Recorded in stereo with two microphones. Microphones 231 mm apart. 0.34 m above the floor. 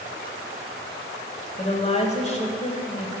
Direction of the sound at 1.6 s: 30° left (ahead or behind).